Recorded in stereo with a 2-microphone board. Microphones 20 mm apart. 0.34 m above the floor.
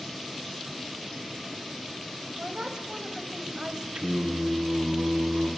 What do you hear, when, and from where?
2.4 s a woman speaking: 45° right (ahead or behind), 1.8 m
4.0 s singing: 65° right (ahead or behind), 4.5 m